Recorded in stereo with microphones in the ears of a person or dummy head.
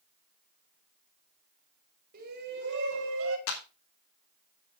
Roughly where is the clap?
Left.